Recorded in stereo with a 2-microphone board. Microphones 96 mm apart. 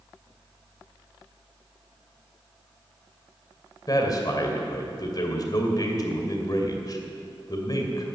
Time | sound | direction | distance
3.9 | a man speaking | 45° left (ahead or behind) | 2.5 m